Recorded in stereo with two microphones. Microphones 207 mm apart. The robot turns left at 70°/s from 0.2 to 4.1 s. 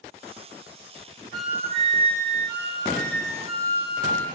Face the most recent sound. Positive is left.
turn(degrees=-165)